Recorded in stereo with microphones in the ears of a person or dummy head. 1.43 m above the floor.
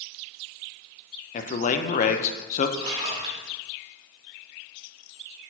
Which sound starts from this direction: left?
A man speaking, at 1.3 s.